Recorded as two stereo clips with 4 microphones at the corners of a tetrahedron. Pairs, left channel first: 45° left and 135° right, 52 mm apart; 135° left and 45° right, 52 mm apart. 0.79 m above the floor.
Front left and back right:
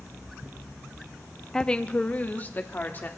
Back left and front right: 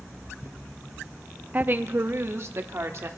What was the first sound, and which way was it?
A woman speaking, 30° right.